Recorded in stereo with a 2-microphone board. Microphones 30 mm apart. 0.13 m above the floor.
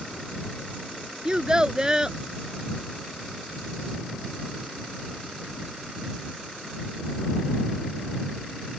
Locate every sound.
1.2 s a child speaking: 25° right (ahead or behind)